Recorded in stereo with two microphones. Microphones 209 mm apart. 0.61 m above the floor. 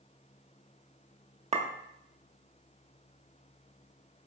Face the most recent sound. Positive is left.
turn(degrees=-30)  # may be behind; listen again after turning